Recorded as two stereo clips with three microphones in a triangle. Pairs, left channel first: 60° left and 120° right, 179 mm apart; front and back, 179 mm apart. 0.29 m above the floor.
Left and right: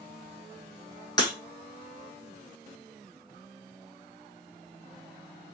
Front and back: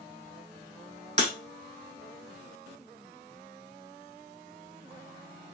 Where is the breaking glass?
125° left, 1.2 m.